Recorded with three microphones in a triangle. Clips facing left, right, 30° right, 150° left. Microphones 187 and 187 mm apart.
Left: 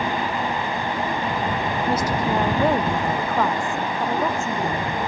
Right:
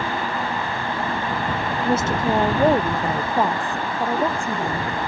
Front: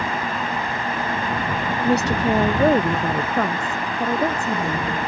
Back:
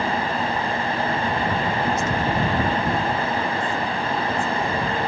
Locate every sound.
1.8 s a woman speaking: 25° right; by 5.0 s 15° right